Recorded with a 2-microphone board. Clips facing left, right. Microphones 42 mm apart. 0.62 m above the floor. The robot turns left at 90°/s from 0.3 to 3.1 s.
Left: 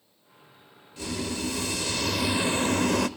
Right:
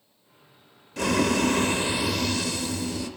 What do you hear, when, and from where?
1.0 s boiling: 70° right, 0.7 m; by 3.1 s 95° left, 0.7 m